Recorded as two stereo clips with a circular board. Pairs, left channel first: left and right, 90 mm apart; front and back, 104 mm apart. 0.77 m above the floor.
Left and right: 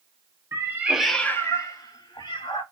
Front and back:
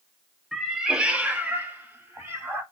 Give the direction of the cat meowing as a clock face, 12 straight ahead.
3 o'clock.